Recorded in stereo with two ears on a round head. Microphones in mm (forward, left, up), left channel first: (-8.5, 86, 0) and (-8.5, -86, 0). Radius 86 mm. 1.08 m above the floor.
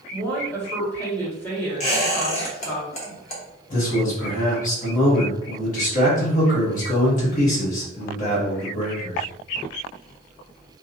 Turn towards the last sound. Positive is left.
turn(degrees=40)  # may be behind; listen again after turning